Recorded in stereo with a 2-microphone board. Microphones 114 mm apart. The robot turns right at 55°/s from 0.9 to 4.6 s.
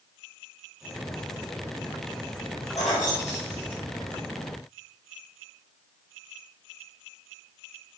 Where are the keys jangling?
70° left (ahead or behind), 1.7 m; by 4.2 s 30° left (ahead or behind), 1.7 m.